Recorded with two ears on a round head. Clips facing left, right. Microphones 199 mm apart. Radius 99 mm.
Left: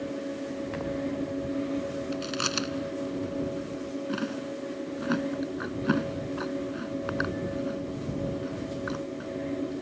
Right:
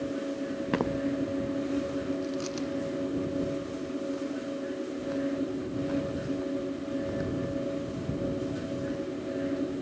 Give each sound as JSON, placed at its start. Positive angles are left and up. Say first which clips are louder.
{"t": 0.7, "sound": "footsteps", "louder": "right 8 dB", "side_deg": -70}
{"t": 2.1, "sound": "chewing", "louder": "right 1 dB", "side_deg": 85}